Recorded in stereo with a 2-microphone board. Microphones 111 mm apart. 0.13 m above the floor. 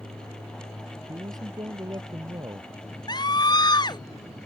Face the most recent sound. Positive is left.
turn(degrees=40)  # may be behind; listen again after turning